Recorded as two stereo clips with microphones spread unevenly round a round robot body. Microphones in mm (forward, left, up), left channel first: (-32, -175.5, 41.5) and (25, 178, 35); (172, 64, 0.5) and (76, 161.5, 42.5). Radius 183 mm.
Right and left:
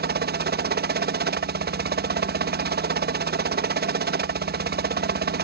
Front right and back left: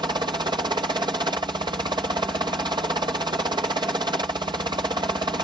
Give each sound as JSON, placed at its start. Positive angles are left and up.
{"t": 0.0, "sound": "a helicopter", "azimuth_deg": 80}